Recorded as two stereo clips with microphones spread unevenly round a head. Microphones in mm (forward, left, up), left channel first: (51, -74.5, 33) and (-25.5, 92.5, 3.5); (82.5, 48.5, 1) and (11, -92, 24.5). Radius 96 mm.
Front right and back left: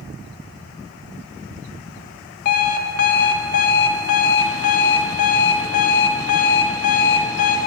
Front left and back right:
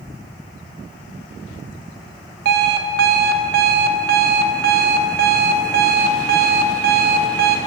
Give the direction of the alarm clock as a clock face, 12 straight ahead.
4 o'clock.